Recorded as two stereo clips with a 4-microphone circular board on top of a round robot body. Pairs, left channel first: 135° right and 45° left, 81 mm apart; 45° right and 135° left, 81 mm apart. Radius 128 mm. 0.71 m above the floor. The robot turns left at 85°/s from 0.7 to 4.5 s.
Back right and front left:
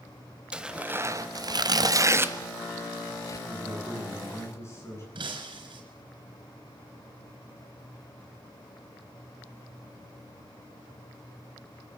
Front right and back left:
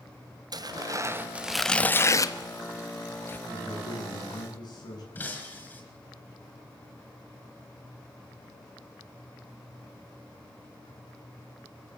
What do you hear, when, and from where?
0.5 s tearing paper: 120° left, 1.5 m; by 3.4 s 110° right, 1.5 m
3.5 s a man speaking: 5° left, 9.5 m; by 5.0 s 80° right, 9.5 m
5.2 s breaking glass: 25° left, 4.5 m